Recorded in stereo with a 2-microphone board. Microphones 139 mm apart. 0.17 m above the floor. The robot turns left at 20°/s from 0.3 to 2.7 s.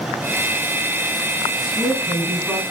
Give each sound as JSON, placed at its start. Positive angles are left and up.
{"t": 1.6, "sound": "a woman speaking", "side_deg": 0, "distance_m": 1.6}